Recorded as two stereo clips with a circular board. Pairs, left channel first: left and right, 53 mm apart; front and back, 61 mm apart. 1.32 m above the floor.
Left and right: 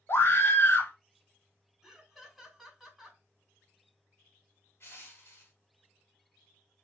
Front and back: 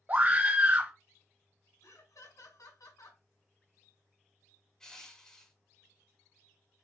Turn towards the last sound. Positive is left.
turn(degrees=75)